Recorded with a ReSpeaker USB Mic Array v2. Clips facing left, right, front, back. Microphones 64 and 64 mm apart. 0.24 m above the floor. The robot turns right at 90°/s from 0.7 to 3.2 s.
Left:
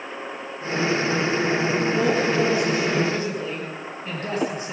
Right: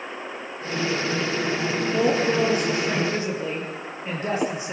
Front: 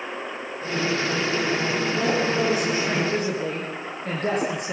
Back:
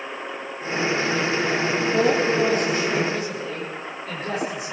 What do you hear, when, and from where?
1.9 s a woman speaking: 135° right, 6 m; by 4.7 s 20° right, 6 m